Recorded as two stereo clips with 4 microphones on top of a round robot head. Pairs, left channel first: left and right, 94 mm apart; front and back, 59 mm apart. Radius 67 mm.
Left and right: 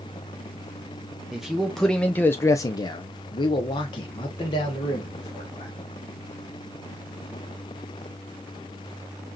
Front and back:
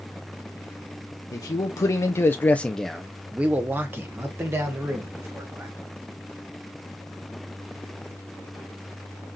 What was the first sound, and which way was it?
A man speaking, 5° right.